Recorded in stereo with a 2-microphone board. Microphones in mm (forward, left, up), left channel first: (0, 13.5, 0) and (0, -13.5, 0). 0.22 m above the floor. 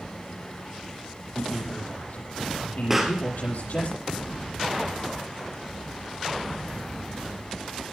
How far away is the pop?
About 2.5 m.